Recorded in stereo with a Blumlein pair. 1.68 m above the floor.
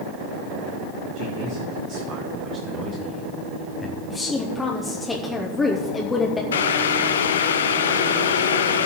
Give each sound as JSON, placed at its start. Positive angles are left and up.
{"t": 1.1, "sound": "a man speaking", "azimuth_deg": -50, "distance_m": 1.8}
{"t": 4.1, "sound": "a woman speaking", "azimuth_deg": 15, "distance_m": 1.0}
{"t": 6.5, "sound": "boiling", "azimuth_deg": 65, "distance_m": 0.6}